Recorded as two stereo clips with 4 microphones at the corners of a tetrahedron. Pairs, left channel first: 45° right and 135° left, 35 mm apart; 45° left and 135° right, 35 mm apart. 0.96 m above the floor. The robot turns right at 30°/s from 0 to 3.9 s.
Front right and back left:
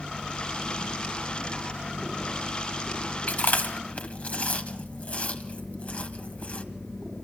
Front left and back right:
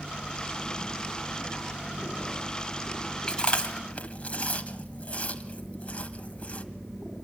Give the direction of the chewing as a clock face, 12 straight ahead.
1 o'clock.